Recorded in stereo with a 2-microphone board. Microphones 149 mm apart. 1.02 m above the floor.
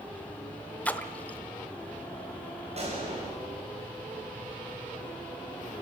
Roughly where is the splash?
Centre.